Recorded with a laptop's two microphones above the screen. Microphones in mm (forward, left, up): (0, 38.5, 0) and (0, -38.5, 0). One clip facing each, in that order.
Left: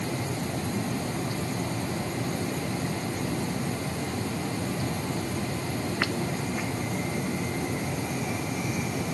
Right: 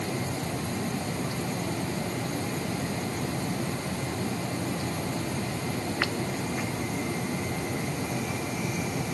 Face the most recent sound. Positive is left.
No sound to turn to.